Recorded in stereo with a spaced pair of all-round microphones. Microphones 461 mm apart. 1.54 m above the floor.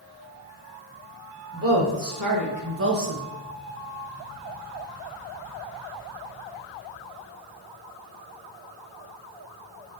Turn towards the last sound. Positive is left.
turn(degrees=-5)  # may be behind; listen again after turning